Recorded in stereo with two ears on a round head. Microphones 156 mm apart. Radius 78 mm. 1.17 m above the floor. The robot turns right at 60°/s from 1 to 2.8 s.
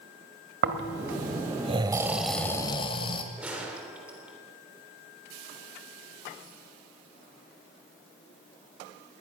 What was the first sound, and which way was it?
Snoring, 75° right.